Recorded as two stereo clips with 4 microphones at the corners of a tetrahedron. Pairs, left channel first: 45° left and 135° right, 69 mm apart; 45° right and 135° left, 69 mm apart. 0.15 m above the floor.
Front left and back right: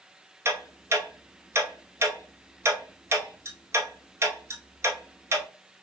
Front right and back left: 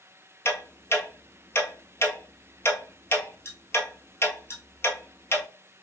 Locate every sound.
0.5 s ticking: 95° right, 0.9 m